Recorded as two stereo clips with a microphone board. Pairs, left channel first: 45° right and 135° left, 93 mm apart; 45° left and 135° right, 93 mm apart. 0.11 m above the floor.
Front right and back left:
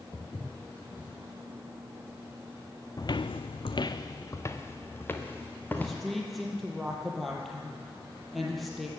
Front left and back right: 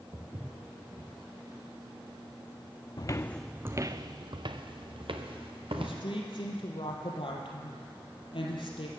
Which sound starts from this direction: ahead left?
A woman speaking, at 5.8 s.